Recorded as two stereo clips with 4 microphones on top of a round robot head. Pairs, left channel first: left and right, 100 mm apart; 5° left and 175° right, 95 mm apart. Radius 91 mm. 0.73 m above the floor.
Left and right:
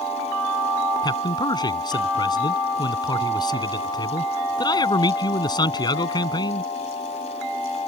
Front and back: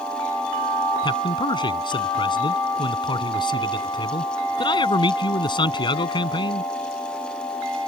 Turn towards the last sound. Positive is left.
turn(degrees=45)